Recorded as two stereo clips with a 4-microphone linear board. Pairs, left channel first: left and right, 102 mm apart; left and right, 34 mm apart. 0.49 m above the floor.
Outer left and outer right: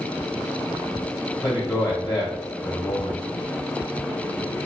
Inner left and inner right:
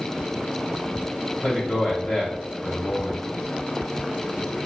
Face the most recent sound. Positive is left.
turn(degrees=45)  # may be behind; listen again after turning